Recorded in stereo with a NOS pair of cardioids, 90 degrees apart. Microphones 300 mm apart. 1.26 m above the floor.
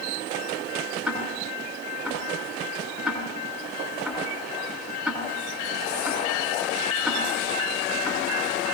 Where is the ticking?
Straight ahead, 8 m.